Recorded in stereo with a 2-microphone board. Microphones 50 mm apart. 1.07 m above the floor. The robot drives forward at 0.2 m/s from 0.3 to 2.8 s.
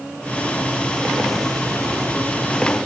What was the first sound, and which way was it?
Only background noise.